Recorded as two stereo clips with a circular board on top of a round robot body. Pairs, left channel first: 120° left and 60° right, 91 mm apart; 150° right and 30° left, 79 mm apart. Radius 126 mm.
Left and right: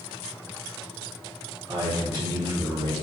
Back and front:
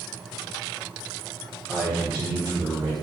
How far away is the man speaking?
About 1.3 m.